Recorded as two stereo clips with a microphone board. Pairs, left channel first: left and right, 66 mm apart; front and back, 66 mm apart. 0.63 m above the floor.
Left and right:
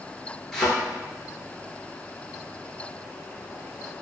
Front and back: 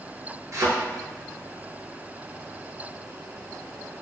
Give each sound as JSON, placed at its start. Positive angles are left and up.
{"t": 0.5, "sound": "a thud", "azimuth_deg": 170, "distance_m": 0.8}